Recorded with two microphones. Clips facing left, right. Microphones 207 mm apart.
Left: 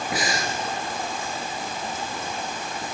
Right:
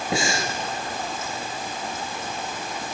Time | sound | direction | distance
0.1 | breathing | 25° right (ahead or behind) | 2.5 m